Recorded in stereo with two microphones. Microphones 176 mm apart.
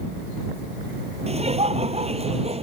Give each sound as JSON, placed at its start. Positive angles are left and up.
{"t": 1.3, "sound": "laughter", "side_deg": -35}